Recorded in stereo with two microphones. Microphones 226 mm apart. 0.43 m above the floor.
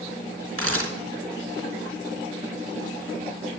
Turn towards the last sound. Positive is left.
turn(degrees=-70)  # may be behind; listen again after turning